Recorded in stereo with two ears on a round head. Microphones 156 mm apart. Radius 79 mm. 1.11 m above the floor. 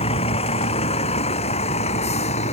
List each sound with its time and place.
0.0 s a vehicle: 35° left (ahead or behind); by 2.5 s 40° left (ahead or behind)